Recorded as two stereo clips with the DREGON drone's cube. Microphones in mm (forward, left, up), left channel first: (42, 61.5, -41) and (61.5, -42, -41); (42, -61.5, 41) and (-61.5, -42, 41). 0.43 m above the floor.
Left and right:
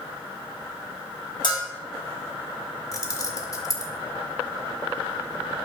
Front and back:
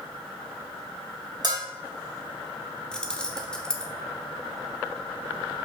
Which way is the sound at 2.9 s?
70° left.